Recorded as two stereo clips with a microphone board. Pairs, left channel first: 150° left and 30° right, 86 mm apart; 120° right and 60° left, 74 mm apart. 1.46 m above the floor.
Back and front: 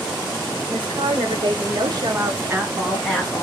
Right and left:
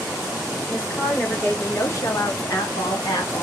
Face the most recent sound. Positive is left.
turn(degrees=-130)